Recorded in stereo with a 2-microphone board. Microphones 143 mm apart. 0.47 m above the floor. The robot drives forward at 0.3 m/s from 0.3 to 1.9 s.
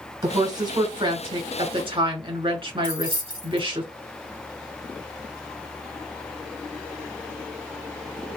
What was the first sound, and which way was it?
A woman speaking, 30° right (ahead or behind).